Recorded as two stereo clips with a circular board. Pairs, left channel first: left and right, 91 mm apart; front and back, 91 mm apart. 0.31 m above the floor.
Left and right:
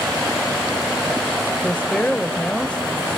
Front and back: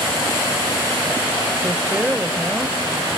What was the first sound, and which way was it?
A woman speaking, 135° left.